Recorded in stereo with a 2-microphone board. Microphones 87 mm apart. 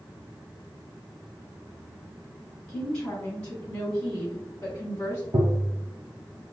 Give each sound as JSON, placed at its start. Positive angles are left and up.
{"t": 2.7, "sound": "a woman speaking", "side_deg": 10, "distance_m": 1.9}
{"t": 5.3, "sound": "tapping", "side_deg": -70, "distance_m": 0.6}